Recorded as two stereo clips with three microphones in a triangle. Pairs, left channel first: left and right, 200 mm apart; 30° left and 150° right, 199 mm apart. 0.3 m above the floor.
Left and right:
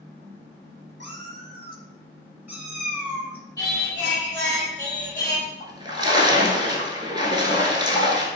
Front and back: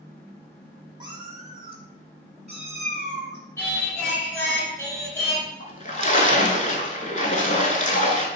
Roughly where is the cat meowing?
Right.